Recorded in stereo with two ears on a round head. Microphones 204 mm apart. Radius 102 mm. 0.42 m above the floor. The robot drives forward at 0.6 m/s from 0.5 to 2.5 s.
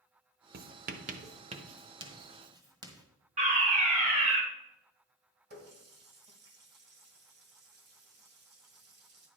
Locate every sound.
0.5 s writing: 40° right (ahead or behind), 0.6 m; by 3.0 s 20° right (ahead or behind), 1.4 m
3.4 s a fire alarm: 35° right (ahead or behind), 2.5 m
5.5 s a running tap: 50° right (ahead or behind), 1.9 m